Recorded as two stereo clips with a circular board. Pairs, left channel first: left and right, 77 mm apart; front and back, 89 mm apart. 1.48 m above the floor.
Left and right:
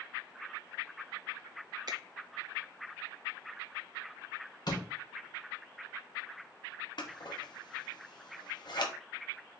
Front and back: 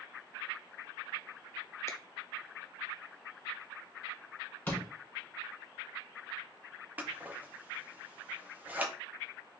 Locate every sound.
1.9 s a finger snap: 60° right, 0.7 m
4.7 s a door slam: 70° left, 1.6 m
7.0 s scissors: 110° left, 0.7 m